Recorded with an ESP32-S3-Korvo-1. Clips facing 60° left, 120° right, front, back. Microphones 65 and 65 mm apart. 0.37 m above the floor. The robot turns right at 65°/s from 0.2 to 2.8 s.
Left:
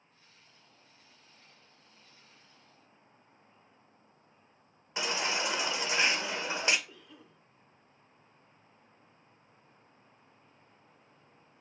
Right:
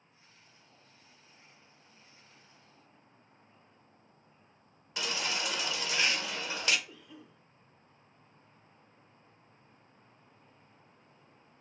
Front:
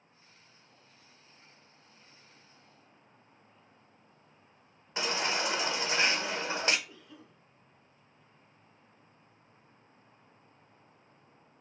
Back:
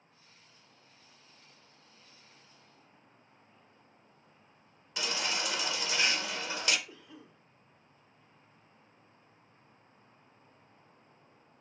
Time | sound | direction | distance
5.0 | a baby crying | 20° left | 0.5 m
6.9 | a cough | 175° left | 1.1 m